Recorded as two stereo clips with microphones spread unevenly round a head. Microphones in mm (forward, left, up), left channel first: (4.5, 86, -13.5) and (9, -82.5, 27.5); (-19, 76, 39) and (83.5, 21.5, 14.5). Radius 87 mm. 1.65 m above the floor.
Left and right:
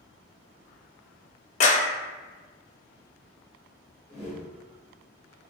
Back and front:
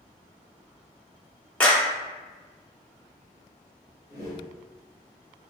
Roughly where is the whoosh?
Behind.